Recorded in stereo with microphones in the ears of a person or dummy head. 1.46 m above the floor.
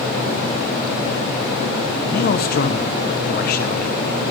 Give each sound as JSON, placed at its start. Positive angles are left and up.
{"t": 2.0, "sound": "a man speaking", "side_deg": 50, "distance_m": 1.3}